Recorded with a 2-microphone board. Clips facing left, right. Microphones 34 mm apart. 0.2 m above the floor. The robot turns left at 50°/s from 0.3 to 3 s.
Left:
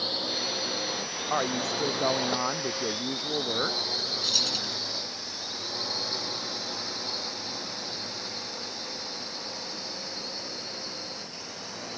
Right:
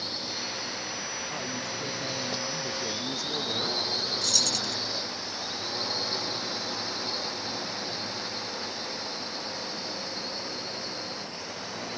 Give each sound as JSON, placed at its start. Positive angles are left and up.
{"t": 0.0, "sound": "a drone", "side_deg": 40}
{"t": 1.3, "sound": "a woman speaking", "azimuth_deg": 125}
{"t": 4.2, "sound": "keys jangling", "side_deg": 25}